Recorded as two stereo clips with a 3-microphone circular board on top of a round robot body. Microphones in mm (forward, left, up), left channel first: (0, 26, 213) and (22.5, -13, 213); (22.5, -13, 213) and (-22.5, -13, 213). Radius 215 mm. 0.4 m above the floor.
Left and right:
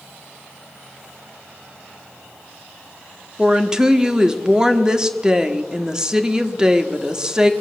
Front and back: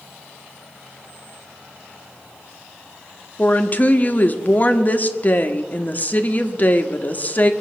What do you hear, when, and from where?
3.4 s a woman speaking: 5° left, 1.4 m